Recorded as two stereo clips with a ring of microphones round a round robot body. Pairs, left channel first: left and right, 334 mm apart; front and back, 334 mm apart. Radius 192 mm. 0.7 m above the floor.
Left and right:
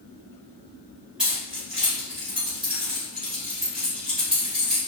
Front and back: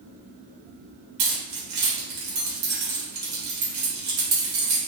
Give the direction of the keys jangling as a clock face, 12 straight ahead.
6 o'clock.